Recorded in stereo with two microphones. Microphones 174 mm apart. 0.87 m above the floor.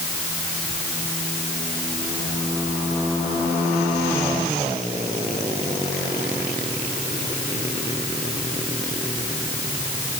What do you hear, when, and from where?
Only background noise.